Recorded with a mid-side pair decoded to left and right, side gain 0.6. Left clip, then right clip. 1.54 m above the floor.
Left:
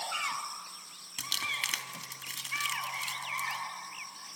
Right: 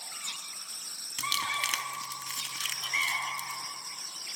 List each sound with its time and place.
1.2 s crumpling: 20° right, 2.5 m